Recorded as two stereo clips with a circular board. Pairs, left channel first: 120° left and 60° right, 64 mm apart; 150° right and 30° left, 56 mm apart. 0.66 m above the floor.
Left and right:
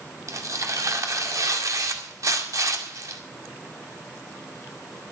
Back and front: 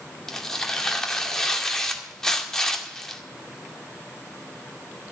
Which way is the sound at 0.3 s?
70° right.